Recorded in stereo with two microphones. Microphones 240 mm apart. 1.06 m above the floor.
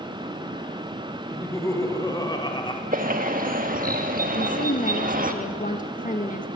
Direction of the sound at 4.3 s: 35° left (ahead or behind).